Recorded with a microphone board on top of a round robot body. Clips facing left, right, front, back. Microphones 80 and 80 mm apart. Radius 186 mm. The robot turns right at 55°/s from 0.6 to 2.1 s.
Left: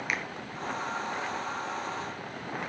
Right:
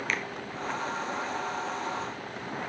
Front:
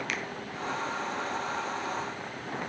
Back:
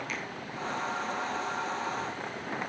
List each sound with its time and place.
0.1 s a finger snap: 15° left, 1.7 m